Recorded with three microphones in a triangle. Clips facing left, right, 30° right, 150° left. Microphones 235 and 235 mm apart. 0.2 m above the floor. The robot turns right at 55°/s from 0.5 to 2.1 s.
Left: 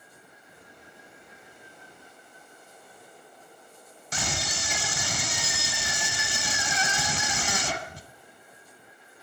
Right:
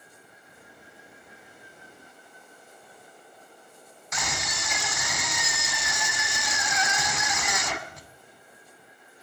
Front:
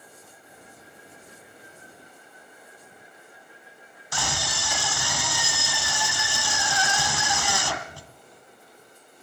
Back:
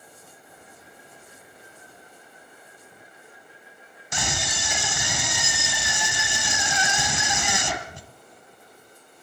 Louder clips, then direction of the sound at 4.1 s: Left 1 dB, back 1 dB; 100° left.